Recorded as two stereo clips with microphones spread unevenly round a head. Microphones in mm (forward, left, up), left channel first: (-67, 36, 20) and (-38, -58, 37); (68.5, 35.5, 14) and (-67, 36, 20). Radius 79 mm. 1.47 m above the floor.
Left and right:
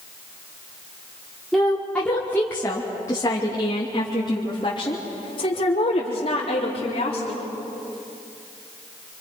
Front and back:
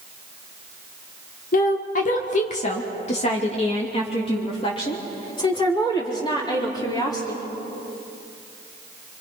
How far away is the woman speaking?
About 2.0 m.